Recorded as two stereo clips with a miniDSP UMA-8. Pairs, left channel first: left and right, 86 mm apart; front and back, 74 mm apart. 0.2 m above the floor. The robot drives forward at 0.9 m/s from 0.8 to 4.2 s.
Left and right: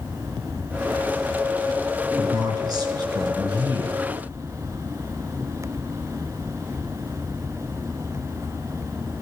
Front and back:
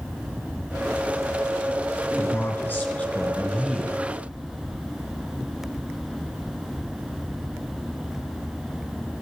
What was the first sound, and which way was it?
A man speaking, 50° right.